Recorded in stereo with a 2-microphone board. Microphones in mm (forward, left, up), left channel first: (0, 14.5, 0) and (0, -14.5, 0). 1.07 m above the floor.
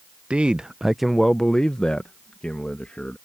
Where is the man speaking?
40° right (ahead or behind); by 3.2 s 50° left (ahead or behind).